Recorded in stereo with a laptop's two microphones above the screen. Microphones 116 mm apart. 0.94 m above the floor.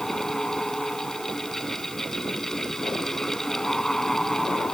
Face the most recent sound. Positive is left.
turn(degrees=5)  # may be behind; listen again after turning